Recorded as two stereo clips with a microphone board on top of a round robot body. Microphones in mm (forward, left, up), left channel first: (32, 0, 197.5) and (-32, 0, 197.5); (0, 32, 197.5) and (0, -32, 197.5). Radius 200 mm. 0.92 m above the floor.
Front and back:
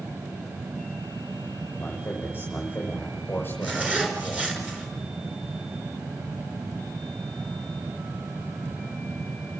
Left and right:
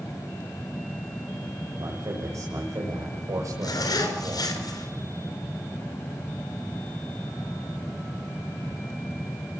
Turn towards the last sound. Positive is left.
turn(degrees=110)